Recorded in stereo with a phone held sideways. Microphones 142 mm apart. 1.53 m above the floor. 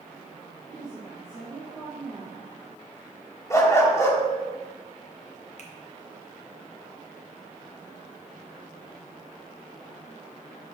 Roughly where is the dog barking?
Left.